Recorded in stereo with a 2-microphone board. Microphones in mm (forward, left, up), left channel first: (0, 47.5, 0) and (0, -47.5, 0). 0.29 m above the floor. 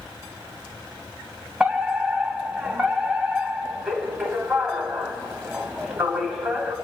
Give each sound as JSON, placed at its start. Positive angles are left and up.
{"t": 1.6, "sound": "a fire alarm", "side_deg": -5, "distance_m": 2.5}